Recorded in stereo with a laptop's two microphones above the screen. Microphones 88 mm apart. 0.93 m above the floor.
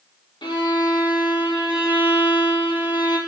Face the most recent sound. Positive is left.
turn(degrees=75)  # may be behind; listen again after turning